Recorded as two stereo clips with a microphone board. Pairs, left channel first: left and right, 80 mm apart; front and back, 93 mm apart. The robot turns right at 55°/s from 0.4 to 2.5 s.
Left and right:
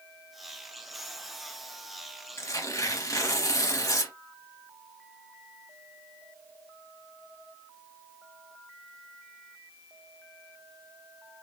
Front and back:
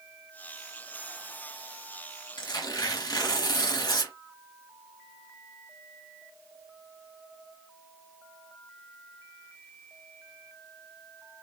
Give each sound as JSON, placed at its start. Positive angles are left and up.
{"t": 2.4, "sound": "tearing paper", "azimuth_deg": 35, "distance_m": 0.9}